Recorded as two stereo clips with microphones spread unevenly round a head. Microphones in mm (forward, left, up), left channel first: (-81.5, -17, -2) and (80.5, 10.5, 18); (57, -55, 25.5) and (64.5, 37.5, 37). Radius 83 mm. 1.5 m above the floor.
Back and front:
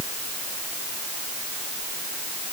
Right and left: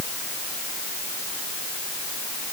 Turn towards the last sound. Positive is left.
No sound to turn to.